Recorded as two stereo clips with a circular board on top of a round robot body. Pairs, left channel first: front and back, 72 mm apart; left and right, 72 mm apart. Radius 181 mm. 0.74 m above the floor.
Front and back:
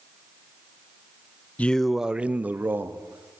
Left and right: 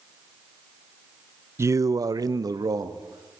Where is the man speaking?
60° right, 0.7 m; by 3.4 s 125° right, 2.0 m.